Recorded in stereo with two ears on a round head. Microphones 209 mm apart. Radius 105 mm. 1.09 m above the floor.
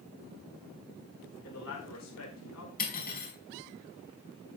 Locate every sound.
1.4 s a man speaking: 75° left (ahead or behind), 5 m
2.8 s cutlery clinking: 40° left (ahead or behind), 4.5 m